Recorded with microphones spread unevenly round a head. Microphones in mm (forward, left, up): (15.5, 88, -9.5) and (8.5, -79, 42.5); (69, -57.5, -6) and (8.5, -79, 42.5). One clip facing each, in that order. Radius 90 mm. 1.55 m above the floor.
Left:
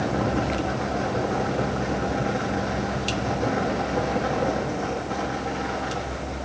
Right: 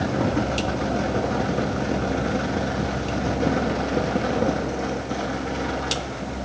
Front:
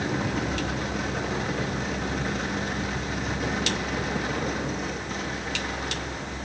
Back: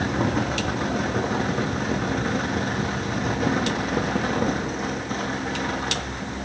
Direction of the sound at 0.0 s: 140° right.